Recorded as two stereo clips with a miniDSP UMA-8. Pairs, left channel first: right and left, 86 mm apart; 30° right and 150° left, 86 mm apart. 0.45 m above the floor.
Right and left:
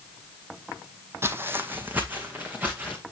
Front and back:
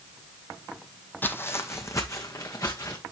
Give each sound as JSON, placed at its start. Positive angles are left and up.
{"t": 1.2, "sound": "footsteps", "azimuth_deg": 35, "distance_m": 0.8}